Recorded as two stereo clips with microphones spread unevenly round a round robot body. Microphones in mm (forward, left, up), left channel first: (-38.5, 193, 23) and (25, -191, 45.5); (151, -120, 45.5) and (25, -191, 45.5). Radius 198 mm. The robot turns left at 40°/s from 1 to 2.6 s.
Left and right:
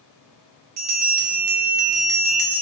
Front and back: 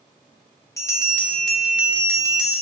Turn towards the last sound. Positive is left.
turn(degrees=-100)